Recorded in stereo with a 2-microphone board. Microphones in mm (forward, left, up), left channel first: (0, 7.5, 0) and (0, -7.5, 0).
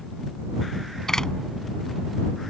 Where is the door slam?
40° left (ahead or behind).